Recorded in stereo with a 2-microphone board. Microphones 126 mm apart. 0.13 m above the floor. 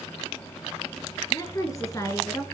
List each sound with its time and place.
1.3 s a woman speaking: 30° left (ahead or behind), 2 m; by 2.5 s 25° left (ahead or behind), 1.5 m